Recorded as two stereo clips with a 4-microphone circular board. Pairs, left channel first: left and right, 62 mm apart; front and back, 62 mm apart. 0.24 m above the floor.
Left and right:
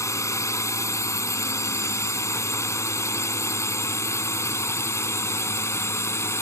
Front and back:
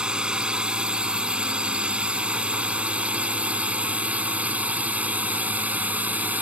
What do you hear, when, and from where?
0.0 s a drone: 105° left; by 6.4 s 120° left